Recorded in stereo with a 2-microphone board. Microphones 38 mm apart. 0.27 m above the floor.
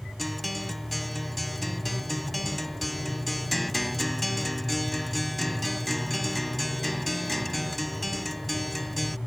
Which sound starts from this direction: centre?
A guitar, at 0.2 s.